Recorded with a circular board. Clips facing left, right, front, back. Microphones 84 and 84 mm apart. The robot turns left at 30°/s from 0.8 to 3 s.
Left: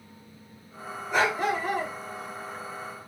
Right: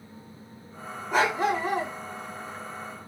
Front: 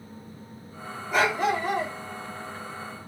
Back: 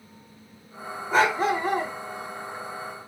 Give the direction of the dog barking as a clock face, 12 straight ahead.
4 o'clock.